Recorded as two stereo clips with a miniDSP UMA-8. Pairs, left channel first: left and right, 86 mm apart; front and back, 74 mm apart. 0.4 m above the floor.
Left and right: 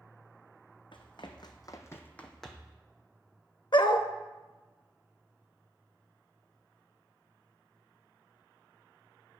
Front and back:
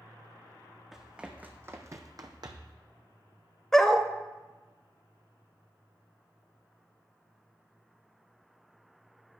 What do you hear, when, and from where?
0.9 s running footsteps: 95° left, 1.1 m; by 2.8 s 170° right, 1.0 m
3.7 s a dog barking: 80° left, 0.5 m